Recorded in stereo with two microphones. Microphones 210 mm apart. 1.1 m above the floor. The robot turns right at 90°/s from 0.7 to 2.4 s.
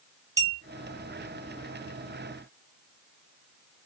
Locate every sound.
0.4 s a clink: 15° right (ahead or behind), 0.9 m